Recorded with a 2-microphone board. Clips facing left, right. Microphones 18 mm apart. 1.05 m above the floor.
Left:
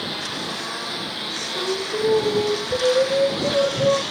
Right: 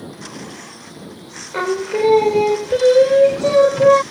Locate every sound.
0.0 s a lawn mower: 55° left (ahead or behind); by 4.1 s 45° left (ahead or behind)
1.5 s singing: 70° right (ahead or behind)